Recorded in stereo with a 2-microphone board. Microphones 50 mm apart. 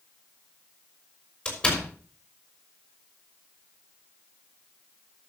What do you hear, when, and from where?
1.4 s a door slam: 20° left (ahead or behind), 4.5 m